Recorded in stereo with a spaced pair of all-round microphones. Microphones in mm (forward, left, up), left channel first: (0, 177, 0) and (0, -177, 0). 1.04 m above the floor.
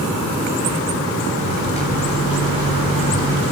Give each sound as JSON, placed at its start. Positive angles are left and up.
{"t": 1.4, "sound": "a microwave", "side_deg": -85, "distance_m": 6.0}